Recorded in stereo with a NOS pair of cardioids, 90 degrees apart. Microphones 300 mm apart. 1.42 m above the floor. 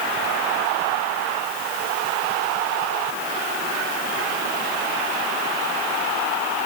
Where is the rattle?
No rattle in this recording.